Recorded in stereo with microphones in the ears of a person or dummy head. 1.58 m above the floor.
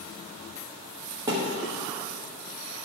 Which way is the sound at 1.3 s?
20° right (ahead or behind).